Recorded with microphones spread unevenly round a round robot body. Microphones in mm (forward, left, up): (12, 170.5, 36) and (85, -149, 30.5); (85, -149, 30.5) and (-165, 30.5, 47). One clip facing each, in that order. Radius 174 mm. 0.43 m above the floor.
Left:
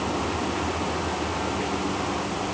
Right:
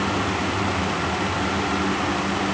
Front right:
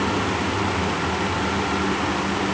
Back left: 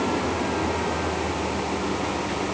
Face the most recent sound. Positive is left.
No sound to turn to.